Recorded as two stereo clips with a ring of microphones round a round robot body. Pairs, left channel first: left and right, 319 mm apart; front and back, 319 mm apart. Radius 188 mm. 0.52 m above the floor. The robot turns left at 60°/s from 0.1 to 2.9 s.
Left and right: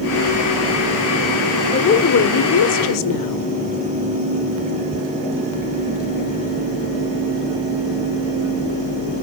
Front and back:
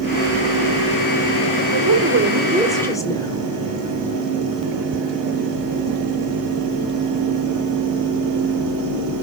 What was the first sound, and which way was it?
A woman speaking, 150° left.